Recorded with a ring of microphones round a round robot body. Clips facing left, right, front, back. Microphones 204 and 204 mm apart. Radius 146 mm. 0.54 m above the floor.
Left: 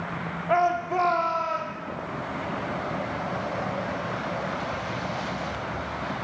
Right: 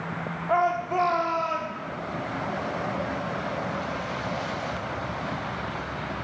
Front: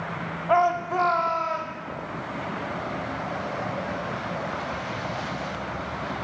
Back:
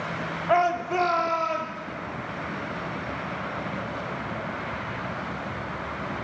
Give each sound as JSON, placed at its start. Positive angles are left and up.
{"t": 0.5, "sound": "a shout", "azimuth_deg": 125, "distance_m": 1.3}